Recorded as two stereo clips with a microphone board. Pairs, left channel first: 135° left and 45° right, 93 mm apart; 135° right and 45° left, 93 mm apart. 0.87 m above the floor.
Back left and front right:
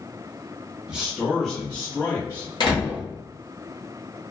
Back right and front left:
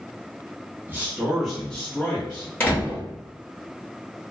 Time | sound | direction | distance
0.9 | a man speaking | 20° left | 0.9 m
2.6 | a door slam | 160° left | 1.2 m